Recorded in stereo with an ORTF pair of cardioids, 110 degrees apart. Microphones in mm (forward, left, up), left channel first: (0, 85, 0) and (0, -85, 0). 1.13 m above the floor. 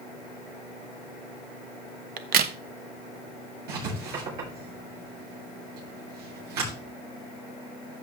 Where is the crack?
65° right, 1.0 m.